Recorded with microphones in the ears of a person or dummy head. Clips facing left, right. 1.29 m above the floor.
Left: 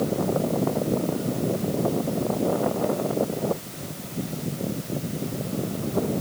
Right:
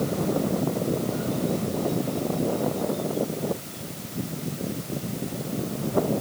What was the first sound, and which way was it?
Only background noise.